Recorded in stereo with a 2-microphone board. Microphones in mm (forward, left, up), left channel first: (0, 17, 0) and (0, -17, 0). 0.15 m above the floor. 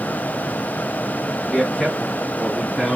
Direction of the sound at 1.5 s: 15° left (ahead or behind).